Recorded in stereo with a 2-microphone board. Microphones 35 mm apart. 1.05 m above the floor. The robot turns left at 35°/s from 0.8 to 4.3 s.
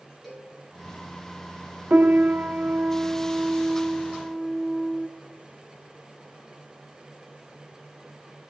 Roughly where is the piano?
Right.